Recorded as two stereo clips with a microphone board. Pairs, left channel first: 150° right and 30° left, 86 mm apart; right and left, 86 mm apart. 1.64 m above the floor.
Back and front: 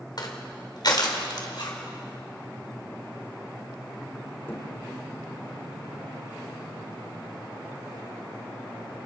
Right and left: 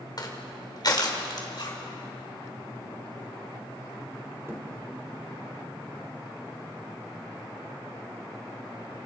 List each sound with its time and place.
0.2 s crushing: 125° right, 2.5 m
1.5 s a zipper: 120° right, 4 m
4.5 s a thud: 150° left, 3 m